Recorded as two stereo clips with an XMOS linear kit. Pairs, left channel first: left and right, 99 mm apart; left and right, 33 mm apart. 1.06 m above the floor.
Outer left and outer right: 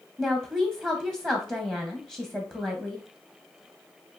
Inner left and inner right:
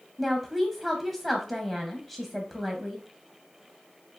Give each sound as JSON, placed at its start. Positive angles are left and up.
{"t": 0.2, "sound": "a woman speaking", "side_deg": -20, "distance_m": 0.8}